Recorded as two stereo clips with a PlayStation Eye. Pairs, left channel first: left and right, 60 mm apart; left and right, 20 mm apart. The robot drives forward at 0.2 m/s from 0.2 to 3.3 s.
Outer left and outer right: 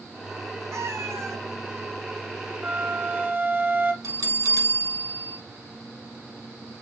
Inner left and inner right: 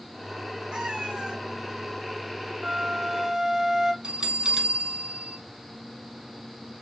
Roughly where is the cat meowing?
Right.